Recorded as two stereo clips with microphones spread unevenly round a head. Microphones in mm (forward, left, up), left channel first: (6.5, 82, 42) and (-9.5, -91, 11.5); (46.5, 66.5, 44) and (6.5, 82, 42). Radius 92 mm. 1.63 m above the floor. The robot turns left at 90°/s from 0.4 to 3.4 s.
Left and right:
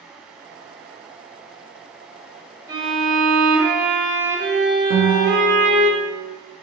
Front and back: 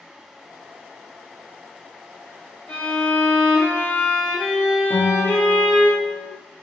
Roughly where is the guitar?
Right.